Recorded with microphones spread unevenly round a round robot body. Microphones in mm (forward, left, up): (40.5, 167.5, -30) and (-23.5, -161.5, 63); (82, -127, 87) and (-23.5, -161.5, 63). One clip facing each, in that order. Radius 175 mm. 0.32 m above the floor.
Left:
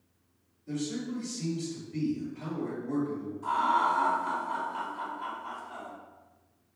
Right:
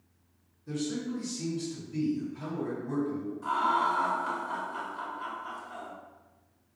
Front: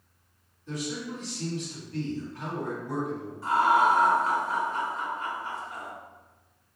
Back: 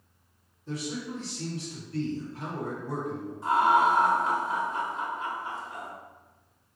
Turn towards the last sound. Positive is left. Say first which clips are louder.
# even, even
turn(degrees=-125)